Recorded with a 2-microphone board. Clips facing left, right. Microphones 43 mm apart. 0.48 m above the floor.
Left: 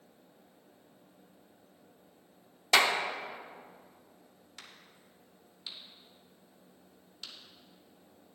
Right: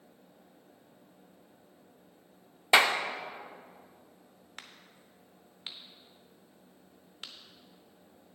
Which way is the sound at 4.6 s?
40° right (ahead or behind).